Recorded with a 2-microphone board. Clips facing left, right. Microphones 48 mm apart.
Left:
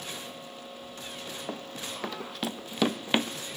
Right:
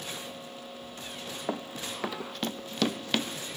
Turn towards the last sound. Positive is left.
turn(degrees=25)  # may be behind; listen again after turning